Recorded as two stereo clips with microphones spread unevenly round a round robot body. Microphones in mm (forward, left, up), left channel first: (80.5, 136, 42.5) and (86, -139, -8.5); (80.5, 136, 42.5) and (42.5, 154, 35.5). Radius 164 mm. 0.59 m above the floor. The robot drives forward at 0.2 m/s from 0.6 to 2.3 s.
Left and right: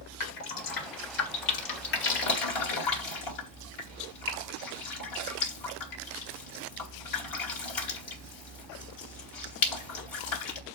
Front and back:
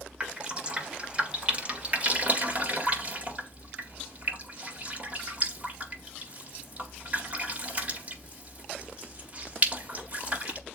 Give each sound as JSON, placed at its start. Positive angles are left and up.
{"t": 0.2, "sound": "dripping", "azimuth_deg": 90, "distance_m": 2.0}